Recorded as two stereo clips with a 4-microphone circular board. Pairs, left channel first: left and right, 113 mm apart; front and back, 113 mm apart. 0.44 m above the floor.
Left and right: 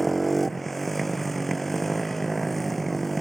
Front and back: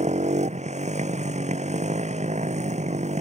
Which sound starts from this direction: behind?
A motorcycle, at 0.0 s.